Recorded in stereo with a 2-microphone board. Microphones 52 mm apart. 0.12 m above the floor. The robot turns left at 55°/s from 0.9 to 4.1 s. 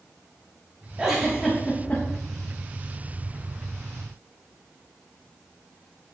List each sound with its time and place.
1.0 s a giggle: 15° right (ahead or behind), 4 m; by 2.0 s 40° left (ahead or behind), 4 m